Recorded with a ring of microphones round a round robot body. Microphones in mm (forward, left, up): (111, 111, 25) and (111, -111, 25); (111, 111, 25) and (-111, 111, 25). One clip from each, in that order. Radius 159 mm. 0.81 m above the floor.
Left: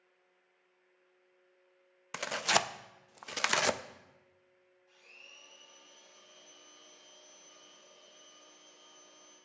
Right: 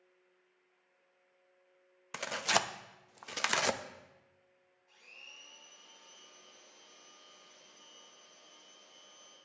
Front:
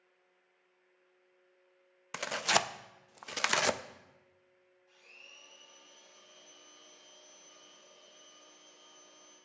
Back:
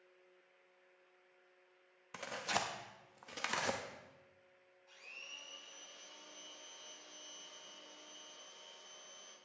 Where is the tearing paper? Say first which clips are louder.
Left 2 dB, front 9 dB; 15° left, 0.5 m.